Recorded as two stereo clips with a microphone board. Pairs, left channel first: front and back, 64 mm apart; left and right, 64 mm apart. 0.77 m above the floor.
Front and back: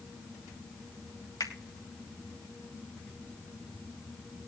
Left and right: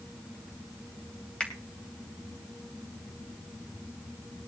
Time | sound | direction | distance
1.4 | a finger snap | 15° left | 2.5 m